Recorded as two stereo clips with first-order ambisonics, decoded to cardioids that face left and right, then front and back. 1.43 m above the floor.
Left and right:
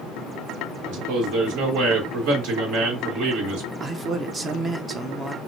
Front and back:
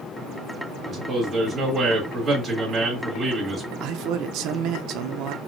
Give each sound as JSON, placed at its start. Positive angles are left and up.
{"t": 0.9, "sound": "a man speaking", "azimuth_deg": -105, "distance_m": 2.5}
{"t": 3.8, "sound": "a man speaking", "azimuth_deg": -160, "distance_m": 0.6}